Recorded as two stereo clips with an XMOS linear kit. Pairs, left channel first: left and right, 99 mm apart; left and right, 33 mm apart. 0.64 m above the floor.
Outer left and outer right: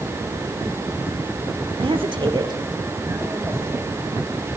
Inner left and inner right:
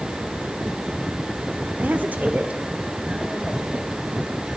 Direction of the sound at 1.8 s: 65° right (ahead or behind).